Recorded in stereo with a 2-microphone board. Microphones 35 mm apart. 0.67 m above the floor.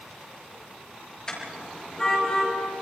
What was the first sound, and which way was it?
A car horn, 20° left (ahead or behind).